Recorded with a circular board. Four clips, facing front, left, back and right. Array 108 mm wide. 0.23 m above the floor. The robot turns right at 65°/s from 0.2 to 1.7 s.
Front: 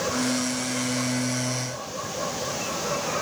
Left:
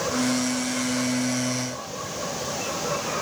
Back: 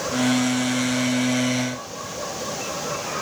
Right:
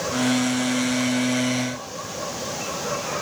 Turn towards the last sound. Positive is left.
No sound to turn to.